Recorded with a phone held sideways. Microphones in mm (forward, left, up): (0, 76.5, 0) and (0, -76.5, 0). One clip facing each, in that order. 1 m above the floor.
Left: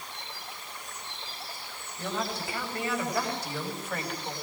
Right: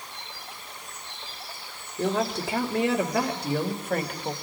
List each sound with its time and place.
2.0 s a woman speaking: 80° right, 3 m; by 4.3 s 50° right (ahead or behind), 3.5 m